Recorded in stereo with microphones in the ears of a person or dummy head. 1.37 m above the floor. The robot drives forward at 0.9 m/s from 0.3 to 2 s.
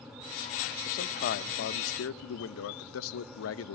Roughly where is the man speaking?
Left.